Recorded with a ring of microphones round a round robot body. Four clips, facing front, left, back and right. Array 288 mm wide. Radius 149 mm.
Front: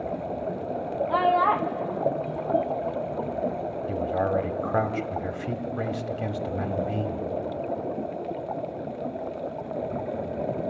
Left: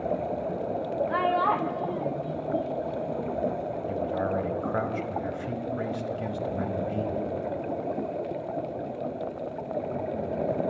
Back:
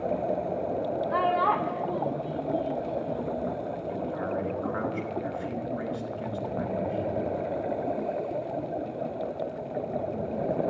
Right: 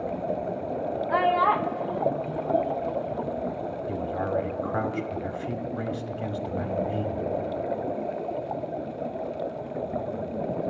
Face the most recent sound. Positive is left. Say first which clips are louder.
# even, front 7 dB
turn(degrees=0)